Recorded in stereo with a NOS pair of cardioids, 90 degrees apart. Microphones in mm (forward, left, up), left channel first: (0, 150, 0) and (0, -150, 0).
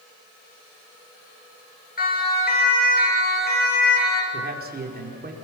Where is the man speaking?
30° right, 4.5 m.